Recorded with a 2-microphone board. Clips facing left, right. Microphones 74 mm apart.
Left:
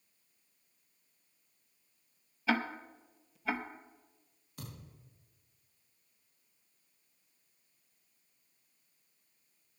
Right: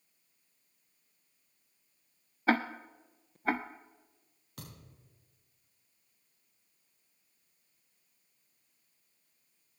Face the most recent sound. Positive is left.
turn(degrees=-70)  # may be behind; listen again after turning